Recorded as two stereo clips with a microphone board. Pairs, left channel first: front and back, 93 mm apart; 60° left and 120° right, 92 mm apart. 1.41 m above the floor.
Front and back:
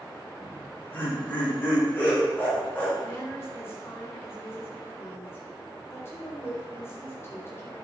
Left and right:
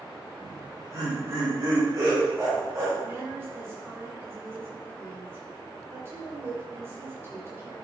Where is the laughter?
65° right, 4.5 m.